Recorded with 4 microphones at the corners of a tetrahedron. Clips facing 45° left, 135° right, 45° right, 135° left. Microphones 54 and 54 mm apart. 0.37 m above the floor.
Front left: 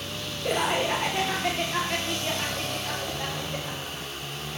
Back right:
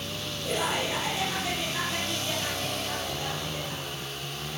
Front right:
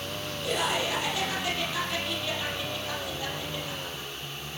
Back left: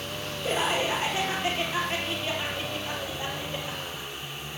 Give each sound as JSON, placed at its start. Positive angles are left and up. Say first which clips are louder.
{"t": 0.4, "sound": "laughter", "louder": "front left 4 dB, back left 2 dB", "azimuth_deg": 75, "distance_m": 9.5}